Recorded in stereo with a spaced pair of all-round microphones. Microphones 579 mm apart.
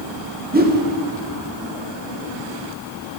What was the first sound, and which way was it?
A whoosh, 15° right (ahead or behind).